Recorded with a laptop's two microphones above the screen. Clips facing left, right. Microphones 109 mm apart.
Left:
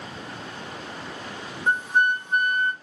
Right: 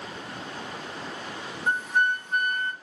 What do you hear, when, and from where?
1.7 s a flute: 15° left (ahead or behind), 2 m